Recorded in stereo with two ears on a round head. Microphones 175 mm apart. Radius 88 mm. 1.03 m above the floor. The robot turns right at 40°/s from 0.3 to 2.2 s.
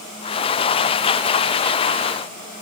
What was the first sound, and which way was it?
Only background noise.